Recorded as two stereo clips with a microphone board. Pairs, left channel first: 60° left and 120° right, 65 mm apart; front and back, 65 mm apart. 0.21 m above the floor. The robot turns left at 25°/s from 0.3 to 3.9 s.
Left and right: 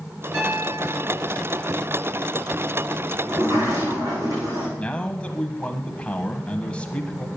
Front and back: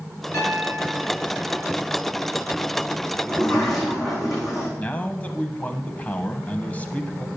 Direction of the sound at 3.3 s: 75° right.